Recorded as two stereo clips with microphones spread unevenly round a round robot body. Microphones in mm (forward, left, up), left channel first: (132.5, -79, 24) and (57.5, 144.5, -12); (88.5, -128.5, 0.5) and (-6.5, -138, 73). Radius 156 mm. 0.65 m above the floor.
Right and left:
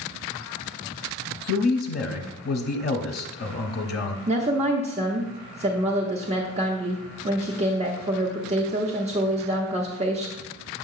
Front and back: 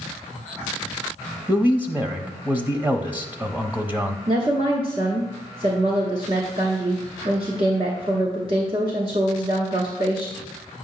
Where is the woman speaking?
110° left, 0.8 m.